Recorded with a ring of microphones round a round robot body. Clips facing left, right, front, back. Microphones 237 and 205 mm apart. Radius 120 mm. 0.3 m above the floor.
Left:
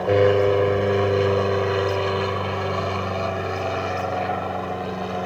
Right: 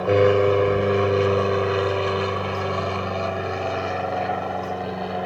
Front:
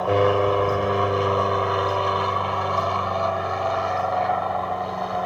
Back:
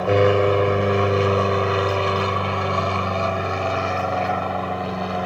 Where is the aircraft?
165° right; by 5.2 s 175° left.